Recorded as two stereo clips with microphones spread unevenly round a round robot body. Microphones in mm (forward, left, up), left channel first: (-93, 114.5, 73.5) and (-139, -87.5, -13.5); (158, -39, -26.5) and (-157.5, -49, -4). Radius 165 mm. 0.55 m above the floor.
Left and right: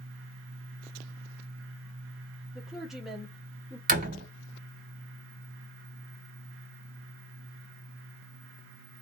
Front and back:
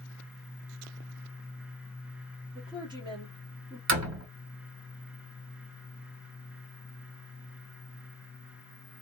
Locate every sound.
2.5 s a woman speaking: 115° right, 1.2 m
3.9 s a door slam: 145° right, 2 m